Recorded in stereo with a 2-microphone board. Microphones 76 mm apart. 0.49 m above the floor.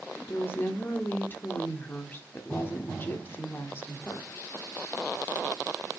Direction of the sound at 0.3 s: 30° left (ahead or behind).